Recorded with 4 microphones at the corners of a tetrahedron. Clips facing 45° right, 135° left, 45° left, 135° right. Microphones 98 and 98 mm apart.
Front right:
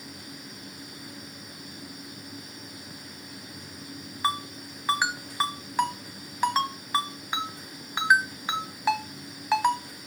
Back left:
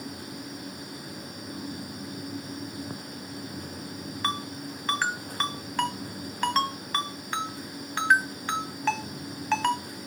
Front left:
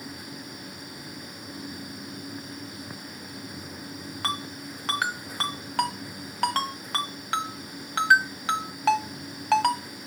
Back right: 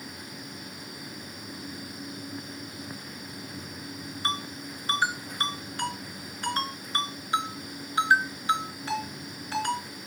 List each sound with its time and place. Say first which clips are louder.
4.2 s a ringtone: front right 3 dB, even; 35° left, 1.4 m